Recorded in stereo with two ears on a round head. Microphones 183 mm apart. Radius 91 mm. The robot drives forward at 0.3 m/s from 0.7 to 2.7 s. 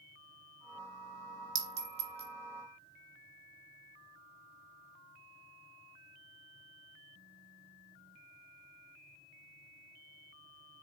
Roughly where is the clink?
Right.